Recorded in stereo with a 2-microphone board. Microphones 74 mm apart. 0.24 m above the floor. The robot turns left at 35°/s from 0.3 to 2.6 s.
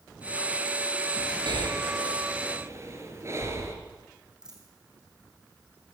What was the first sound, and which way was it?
Breathing, 70° right (ahead or behind).